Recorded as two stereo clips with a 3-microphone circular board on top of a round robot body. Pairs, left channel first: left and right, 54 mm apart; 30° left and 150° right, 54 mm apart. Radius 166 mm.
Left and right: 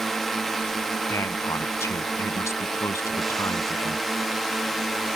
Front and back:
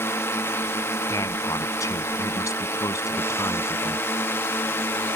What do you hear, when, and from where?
0.0 s a drone: 5° left
1.1 s a man speaking: 55° left